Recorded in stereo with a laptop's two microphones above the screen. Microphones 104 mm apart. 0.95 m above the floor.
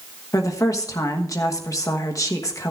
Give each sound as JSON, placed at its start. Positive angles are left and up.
{"t": 0.3, "sound": "a woman speaking", "side_deg": 30, "distance_m": 1.2}